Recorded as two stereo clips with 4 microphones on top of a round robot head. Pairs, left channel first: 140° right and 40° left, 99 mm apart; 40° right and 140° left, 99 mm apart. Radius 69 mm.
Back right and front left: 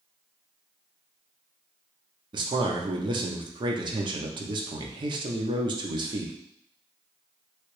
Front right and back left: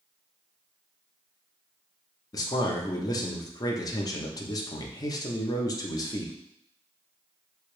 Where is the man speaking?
5° left, 0.7 m.